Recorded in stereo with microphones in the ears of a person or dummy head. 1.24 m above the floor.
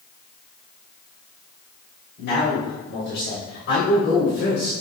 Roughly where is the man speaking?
Left.